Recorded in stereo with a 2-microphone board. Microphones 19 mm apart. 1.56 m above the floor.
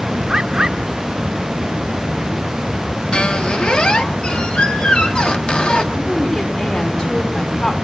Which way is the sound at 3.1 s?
55° left (ahead or behind).